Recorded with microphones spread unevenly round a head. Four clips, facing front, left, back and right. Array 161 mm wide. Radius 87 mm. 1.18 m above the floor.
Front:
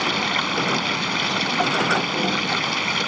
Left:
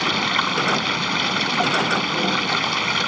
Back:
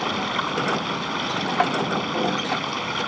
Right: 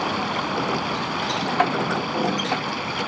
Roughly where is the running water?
Ahead left.